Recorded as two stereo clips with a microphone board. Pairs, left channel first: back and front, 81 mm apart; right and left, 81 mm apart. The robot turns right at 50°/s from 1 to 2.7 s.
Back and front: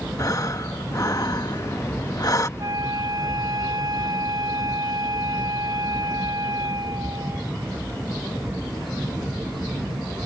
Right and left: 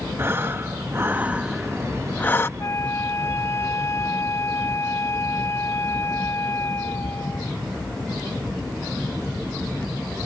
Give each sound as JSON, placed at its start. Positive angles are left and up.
{"t": 0.2, "sound": "breathing", "azimuth_deg": 145}
{"t": 2.6, "sound": "a flute", "azimuth_deg": -40}